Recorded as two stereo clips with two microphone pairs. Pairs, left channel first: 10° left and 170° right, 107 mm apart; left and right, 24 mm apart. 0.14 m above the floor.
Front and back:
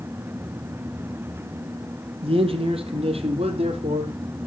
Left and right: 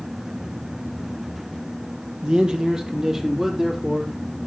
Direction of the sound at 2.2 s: 145° right.